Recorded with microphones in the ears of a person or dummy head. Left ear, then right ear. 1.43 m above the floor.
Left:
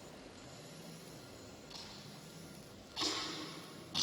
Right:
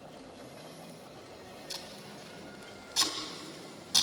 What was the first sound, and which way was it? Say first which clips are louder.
Tape being pulled: right 8 dB; 65° right (ahead or behind).